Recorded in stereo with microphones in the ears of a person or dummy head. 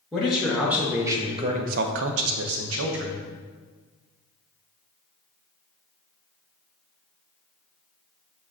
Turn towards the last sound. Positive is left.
turn(degrees=-55)  # may be behind; listen again after turning